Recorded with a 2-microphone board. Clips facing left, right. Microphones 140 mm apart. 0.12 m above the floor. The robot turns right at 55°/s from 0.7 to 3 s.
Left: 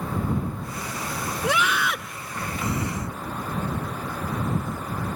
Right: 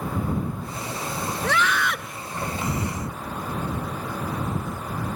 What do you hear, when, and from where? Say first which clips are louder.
1.4 s a scream: even; 15° left (ahead or behind); by 2.2 s centre (ahead or behind)